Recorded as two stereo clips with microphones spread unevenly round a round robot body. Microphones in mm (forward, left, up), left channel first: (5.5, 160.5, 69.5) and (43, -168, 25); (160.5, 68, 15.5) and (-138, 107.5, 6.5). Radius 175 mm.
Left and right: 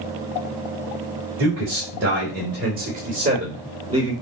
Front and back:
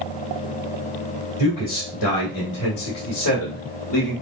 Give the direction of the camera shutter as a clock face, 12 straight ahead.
I don't hear a camera shutter.